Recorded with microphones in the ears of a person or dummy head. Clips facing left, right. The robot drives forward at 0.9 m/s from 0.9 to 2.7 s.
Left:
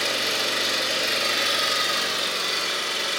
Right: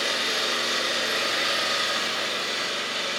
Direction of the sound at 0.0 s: 40° left (ahead or behind).